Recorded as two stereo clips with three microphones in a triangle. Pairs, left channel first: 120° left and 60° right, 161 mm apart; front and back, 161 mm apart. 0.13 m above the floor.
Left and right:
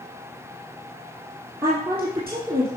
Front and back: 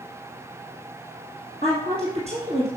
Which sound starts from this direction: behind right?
A woman speaking, at 1.6 s.